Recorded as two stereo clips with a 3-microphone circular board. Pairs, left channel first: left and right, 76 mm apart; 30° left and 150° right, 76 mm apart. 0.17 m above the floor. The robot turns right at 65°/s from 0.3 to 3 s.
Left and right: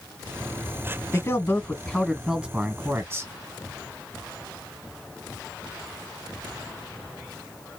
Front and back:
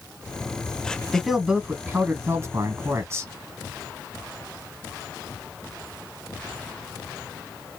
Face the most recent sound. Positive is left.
turn(degrees=-125)